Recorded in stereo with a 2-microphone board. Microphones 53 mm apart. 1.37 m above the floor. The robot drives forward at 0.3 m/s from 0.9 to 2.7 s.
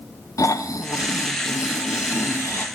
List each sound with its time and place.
0.4 s snoring: 75° left (ahead or behind), 0.6 m; by 2.6 s 50° left (ahead or behind), 0.8 m